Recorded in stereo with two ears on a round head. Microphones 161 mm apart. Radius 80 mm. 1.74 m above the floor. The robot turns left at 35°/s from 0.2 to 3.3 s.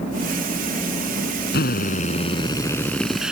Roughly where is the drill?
Ahead left.